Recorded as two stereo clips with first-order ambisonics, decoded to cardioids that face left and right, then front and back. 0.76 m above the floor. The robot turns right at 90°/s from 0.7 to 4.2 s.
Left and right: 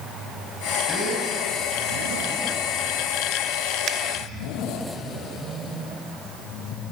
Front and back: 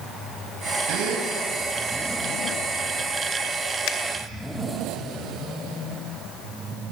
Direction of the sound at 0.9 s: 170° left.